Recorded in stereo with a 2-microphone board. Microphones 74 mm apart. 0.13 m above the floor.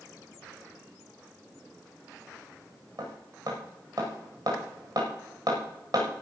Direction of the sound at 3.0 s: 50° right (ahead or behind).